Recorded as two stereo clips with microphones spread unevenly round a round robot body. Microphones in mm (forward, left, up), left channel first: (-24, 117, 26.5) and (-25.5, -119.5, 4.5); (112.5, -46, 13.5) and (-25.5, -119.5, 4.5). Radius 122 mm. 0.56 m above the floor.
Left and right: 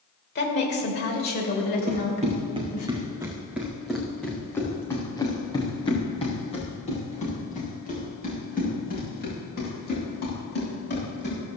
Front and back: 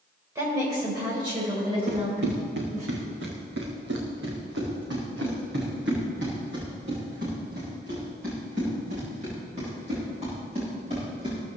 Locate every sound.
0.3 s a woman speaking: 135° left, 2.5 m; by 2.9 s 145° left, 4 m
1.9 s running footsteps: 150° right, 3 m; by 11.4 s 135° left, 8.5 m